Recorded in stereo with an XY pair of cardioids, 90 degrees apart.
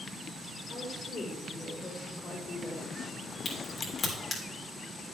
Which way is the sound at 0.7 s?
60° left.